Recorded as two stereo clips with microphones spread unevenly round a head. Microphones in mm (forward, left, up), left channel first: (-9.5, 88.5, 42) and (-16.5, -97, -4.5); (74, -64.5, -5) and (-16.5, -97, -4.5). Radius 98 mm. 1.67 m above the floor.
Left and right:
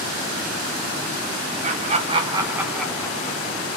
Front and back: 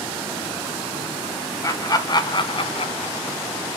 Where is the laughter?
35° right, 1.4 m; by 3.8 s 65° left, 0.9 m.